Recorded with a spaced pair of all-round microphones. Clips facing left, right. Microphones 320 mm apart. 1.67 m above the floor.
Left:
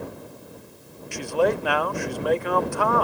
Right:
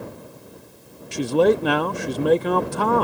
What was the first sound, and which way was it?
A man speaking, 45° right (ahead or behind).